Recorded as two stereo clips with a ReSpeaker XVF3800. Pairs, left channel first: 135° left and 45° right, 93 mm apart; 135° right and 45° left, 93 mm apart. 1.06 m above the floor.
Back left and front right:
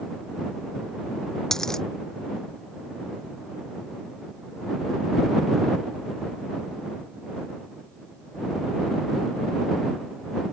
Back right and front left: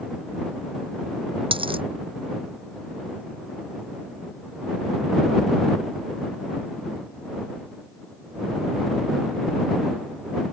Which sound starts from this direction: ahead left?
A dropped coin, at 1.5 s.